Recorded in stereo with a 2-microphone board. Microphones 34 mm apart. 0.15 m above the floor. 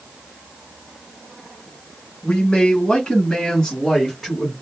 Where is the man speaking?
25° left (ahead or behind), 1.3 m; by 4.5 s 5° left (ahead or behind), 1.6 m.